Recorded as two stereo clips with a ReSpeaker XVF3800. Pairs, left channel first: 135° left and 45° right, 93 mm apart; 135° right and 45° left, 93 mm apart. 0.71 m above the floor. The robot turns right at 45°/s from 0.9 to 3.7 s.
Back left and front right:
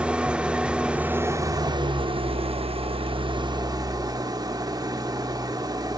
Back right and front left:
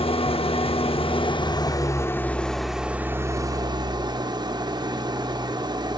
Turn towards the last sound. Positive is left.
turn(degrees=0)